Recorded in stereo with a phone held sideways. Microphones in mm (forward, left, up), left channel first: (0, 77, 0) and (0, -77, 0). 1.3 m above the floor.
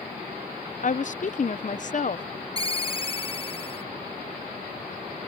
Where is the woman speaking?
55° left (ahead or behind).